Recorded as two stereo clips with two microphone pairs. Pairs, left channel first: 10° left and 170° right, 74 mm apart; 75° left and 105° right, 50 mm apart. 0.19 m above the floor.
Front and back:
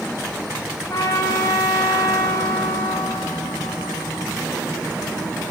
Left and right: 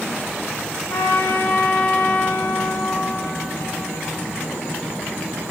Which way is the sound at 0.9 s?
50° left.